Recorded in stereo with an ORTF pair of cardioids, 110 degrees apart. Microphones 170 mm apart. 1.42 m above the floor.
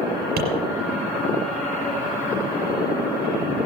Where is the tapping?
70° right, 4.5 m.